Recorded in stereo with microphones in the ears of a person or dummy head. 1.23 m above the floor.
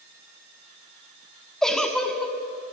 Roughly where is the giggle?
Centre.